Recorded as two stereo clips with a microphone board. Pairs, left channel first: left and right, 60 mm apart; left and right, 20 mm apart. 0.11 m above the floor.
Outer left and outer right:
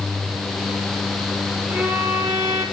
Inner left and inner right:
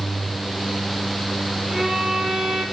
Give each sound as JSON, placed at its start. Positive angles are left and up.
{"t": 1.7, "sound": "a violin", "side_deg": -20, "distance_m": 4.5}